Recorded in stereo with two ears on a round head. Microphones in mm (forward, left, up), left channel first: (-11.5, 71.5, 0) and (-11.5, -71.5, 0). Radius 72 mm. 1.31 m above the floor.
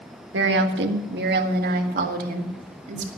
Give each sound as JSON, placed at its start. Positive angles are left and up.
{"t": 0.3, "sound": "a woman speaking", "side_deg": -85, "distance_m": 1.6}